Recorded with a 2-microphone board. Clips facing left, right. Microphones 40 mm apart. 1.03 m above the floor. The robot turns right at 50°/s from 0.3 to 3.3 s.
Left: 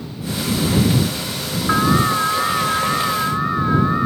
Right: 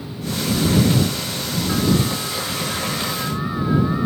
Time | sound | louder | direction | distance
1.7 | an alarm | left 5 dB | 70° left | ?